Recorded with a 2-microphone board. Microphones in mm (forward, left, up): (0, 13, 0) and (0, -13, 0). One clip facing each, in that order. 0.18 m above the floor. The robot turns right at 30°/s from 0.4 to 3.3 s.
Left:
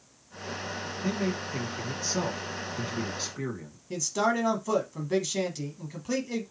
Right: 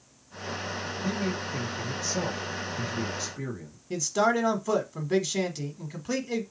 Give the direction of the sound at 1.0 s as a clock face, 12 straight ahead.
11 o'clock.